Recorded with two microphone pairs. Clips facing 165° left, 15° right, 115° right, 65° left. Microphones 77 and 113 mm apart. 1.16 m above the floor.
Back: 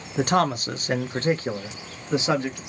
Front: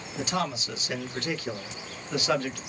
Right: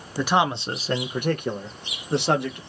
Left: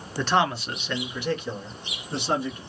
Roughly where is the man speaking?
Behind.